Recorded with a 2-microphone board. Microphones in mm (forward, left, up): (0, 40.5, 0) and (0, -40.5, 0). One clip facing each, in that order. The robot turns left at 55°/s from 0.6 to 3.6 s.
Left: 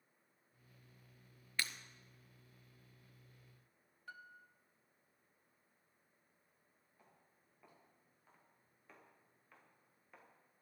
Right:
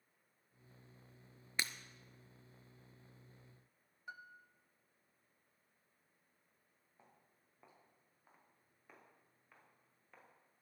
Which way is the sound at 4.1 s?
20° right (ahead or behind).